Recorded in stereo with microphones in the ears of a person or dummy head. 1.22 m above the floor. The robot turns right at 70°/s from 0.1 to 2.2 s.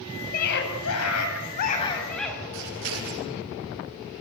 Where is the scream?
45° left, 7.5 m; by 2.4 s 175° left, 7.5 m.